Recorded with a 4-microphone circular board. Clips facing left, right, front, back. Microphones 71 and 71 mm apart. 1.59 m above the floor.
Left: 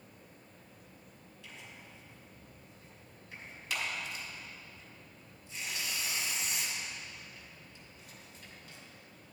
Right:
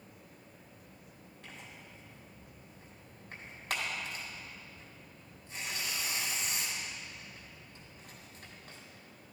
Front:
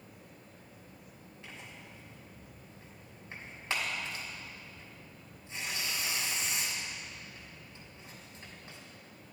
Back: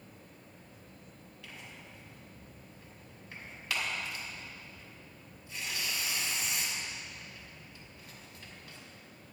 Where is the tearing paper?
55° right, 3 m.